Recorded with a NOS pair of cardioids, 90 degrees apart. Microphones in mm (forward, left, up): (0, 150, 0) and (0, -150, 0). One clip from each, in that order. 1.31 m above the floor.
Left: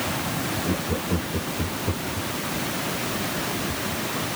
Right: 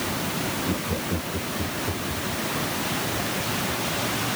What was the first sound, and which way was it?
Laughter, 10° left.